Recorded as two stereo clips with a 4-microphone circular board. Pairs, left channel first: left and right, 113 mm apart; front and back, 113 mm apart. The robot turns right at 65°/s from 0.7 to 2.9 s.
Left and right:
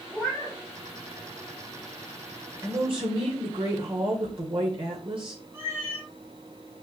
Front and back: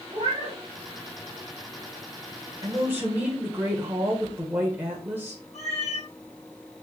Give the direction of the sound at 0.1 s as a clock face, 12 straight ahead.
6 o'clock.